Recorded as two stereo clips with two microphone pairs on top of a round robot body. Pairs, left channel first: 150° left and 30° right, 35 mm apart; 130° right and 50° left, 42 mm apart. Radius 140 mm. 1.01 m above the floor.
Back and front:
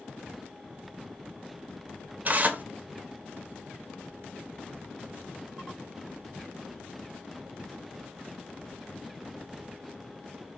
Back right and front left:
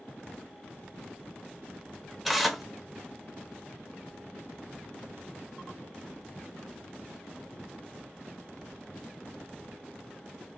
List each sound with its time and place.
2.2 s tearing paper: 40° right, 0.6 m